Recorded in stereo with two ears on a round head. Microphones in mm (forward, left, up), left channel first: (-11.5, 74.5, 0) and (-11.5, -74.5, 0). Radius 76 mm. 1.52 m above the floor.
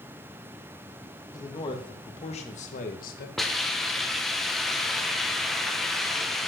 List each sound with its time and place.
1.3 s a man speaking: 25° left (ahead or behind), 2.5 m; by 3.3 s 65° left (ahead or behind), 1.8 m
3.4 s a hiss: centre (ahead or behind), 1.5 m